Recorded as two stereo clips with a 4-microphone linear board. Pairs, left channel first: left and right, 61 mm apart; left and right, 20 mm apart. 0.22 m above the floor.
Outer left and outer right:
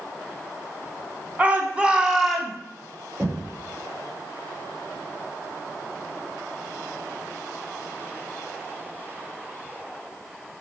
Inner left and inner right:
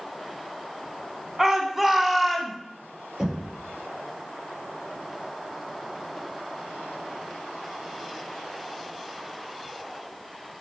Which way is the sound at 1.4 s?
25° right (ahead or behind).